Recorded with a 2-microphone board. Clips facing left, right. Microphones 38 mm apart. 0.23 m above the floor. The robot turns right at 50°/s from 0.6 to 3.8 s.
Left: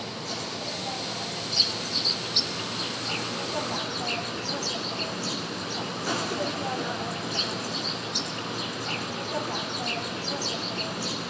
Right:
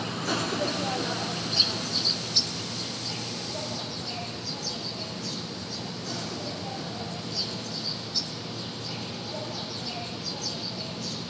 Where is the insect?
60° right, 1.5 m; by 11.3 s 100° left, 1.5 m.